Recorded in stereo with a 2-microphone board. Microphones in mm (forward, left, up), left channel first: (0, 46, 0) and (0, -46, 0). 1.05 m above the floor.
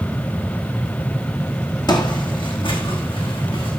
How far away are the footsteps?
About 1.9 m.